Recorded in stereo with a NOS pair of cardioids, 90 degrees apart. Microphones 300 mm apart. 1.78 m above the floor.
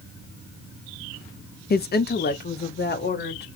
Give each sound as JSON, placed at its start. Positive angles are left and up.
{"t": 1.7, "sound": "a woman speaking", "azimuth_deg": 35, "distance_m": 0.6}